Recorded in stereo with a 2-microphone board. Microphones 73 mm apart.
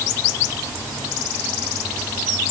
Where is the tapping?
No tapping in this recording.